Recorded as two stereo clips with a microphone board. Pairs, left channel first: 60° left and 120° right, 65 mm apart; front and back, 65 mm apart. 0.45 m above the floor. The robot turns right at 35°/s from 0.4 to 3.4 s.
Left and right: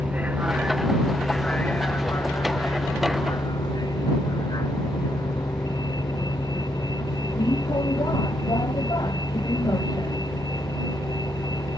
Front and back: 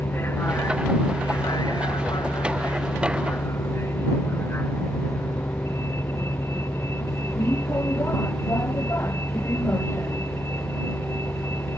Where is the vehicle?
55° right; by 11.8 s 50° left.